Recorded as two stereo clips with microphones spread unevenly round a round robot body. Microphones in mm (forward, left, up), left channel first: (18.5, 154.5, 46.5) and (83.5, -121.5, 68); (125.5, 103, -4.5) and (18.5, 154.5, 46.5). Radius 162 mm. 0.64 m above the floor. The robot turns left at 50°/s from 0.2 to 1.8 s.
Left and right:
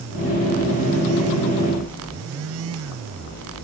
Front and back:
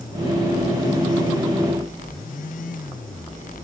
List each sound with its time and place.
Only background noise.